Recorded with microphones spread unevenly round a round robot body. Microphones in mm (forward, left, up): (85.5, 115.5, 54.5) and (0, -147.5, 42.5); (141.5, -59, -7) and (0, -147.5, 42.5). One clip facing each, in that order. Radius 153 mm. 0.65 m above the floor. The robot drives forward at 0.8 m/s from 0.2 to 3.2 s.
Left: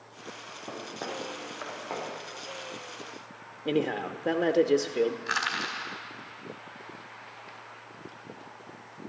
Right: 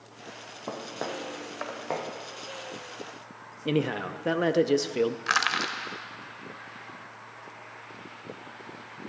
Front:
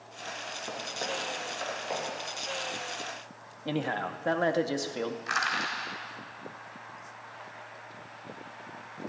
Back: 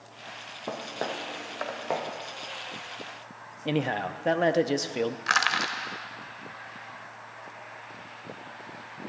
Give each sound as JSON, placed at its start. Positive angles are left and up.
{"t": 0.7, "sound": "footsteps", "azimuth_deg": -130, "distance_m": 2.0}
{"t": 3.6, "sound": "a man speaking", "azimuth_deg": -65, "distance_m": 0.5}
{"t": 5.3, "sound": "crushing", "azimuth_deg": -140, "distance_m": 1.4}